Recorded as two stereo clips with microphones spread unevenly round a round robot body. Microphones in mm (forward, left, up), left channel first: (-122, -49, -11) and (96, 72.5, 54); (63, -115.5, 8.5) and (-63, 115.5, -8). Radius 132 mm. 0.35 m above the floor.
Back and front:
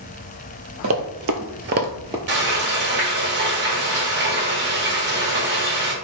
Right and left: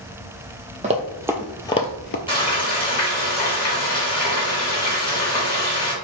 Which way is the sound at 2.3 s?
Straight ahead.